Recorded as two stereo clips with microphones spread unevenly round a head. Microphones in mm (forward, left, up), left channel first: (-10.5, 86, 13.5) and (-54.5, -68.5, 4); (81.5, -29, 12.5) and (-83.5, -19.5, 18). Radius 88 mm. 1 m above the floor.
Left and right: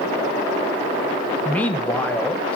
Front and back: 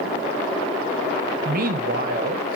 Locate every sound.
1.4 s a man speaking: 155° left, 0.7 m